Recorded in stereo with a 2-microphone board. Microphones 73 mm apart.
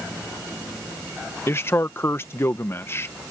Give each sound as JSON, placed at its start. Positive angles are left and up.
{"t": 1.5, "sound": "a man speaking", "side_deg": 35}